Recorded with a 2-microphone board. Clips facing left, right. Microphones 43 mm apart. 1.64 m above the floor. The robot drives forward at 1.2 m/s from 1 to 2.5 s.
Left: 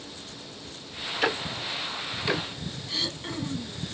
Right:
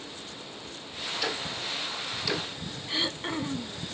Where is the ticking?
40° left (ahead or behind), 1.6 m; by 2.5 s 30° left (ahead or behind), 2.5 m.